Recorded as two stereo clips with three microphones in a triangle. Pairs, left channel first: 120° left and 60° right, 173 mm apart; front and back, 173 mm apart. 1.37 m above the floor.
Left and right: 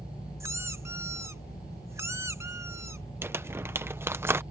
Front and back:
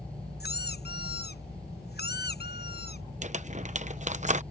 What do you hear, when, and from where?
0.4 s a squeak: 15° left
3.2 s crumpling: 135° right